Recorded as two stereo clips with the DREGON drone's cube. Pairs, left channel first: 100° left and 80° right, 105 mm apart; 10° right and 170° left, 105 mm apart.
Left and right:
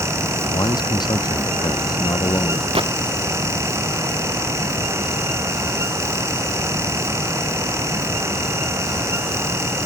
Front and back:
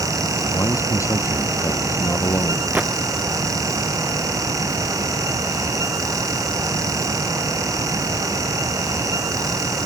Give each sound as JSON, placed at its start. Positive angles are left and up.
{"t": 0.5, "sound": "a man speaking", "azimuth_deg": 50}
{"t": 2.8, "sound": "a gunshot", "azimuth_deg": -115}